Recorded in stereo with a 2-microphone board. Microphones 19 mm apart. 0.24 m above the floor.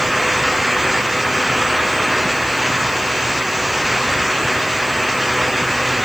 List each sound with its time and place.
Only background noise.